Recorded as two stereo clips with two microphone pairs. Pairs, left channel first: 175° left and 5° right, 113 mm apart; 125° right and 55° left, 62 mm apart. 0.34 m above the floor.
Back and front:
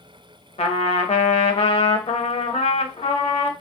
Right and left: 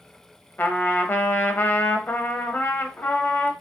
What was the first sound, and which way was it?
A trumpet, straight behind.